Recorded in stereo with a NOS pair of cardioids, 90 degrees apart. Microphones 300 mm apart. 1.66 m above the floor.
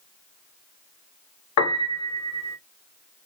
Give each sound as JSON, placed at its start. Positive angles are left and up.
{"t": 1.6, "sound": "a piano", "azimuth_deg": 65, "distance_m": 1.1}